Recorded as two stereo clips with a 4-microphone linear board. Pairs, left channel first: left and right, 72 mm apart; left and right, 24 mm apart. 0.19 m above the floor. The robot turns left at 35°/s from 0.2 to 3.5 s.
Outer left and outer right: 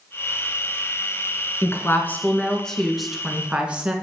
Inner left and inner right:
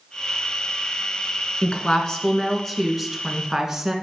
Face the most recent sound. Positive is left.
turn(degrees=-20)